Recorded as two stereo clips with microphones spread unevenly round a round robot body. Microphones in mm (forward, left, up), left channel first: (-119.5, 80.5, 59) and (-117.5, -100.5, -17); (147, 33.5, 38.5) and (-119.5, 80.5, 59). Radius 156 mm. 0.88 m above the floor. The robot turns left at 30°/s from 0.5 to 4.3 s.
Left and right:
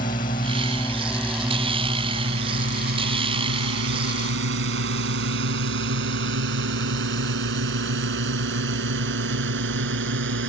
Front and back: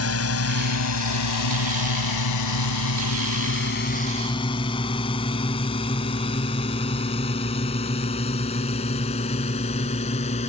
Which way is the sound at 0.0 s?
25° left.